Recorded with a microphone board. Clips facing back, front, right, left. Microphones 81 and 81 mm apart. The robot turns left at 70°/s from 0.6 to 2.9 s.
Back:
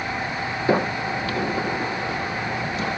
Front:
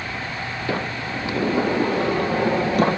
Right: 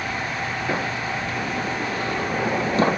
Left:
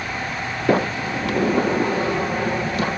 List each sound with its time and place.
0.7 s a sliding door: 115° left, 1.3 m; by 3.0 s 40° right, 1.3 m